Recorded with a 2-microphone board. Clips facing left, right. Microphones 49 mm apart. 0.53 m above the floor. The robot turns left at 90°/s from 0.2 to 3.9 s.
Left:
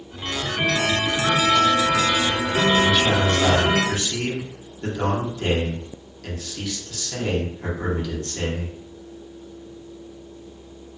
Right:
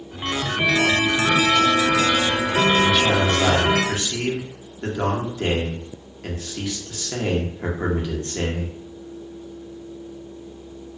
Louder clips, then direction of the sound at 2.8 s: Right 1 dB; 5° left (ahead or behind).